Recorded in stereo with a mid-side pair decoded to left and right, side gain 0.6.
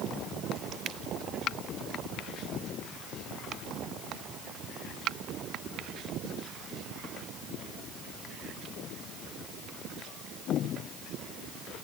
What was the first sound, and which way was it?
Only background noise.